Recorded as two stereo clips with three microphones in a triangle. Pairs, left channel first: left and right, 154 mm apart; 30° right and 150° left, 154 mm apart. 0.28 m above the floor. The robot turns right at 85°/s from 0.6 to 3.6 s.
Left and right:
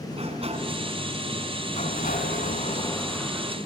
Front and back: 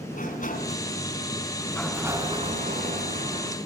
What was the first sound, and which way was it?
A sliding door, 45° right.